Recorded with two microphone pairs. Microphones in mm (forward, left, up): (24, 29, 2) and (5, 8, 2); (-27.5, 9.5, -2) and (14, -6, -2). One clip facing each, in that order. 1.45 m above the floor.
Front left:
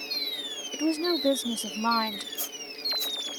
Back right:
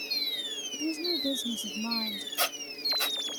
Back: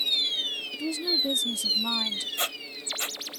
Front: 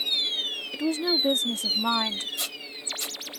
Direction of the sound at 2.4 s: 150° right.